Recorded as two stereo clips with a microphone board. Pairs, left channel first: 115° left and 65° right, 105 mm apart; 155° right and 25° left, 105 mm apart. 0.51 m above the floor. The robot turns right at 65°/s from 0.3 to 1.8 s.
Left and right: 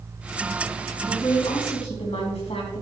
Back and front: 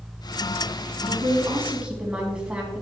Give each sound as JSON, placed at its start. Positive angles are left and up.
{"t": 1.1, "sound": "a woman speaking", "azimuth_deg": 55, "distance_m": 3.5}